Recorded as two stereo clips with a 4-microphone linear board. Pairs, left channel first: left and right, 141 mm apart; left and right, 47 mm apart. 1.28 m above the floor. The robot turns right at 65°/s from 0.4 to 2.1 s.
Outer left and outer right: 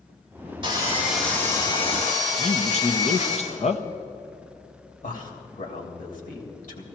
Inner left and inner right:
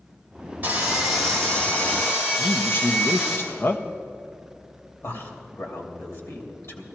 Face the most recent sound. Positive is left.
turn(degrees=70)  # may be behind; listen again after turning